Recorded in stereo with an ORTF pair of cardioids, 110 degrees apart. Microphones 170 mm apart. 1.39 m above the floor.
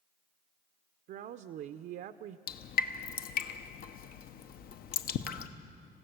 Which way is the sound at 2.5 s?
65° left.